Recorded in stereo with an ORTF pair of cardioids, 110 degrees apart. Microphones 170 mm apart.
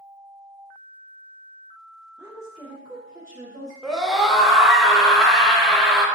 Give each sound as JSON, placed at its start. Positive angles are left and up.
{"t": 2.2, "sound": "a woman speaking", "azimuth_deg": -15, "distance_m": 0.5}
{"t": 3.8, "sound": "a scream", "azimuth_deg": 0, "distance_m": 0.7}